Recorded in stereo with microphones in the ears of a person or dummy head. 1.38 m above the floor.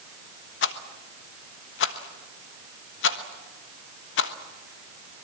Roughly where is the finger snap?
No finger snap in this recording.